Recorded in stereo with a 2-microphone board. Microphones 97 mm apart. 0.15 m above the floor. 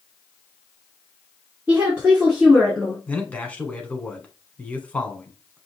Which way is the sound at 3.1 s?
15° left (ahead or behind).